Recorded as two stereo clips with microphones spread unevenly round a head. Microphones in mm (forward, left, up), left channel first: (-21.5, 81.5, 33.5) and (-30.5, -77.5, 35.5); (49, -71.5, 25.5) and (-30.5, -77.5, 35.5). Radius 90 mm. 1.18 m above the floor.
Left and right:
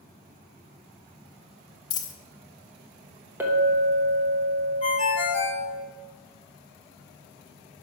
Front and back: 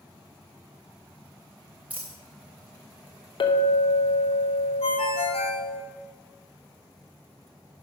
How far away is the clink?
About 0.9 m.